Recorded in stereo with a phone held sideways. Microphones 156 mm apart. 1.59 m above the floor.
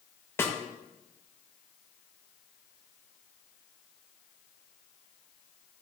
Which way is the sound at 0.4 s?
15° left (ahead or behind).